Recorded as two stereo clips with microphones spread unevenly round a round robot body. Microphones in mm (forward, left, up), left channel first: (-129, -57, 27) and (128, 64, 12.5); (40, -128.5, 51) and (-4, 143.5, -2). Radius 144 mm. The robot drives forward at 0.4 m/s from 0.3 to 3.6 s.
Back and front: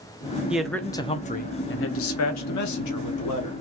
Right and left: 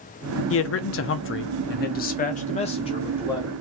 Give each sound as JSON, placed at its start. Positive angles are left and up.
{"t": 0.5, "sound": "a man speaking", "azimuth_deg": -55, "distance_m": 0.6}